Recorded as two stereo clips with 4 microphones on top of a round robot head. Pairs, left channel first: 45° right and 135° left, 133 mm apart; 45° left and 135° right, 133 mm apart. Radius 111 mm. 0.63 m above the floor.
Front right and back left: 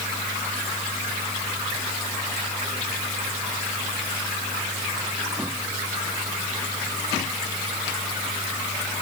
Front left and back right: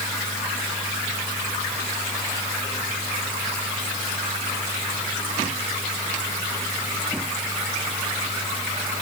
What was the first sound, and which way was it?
Only background noise.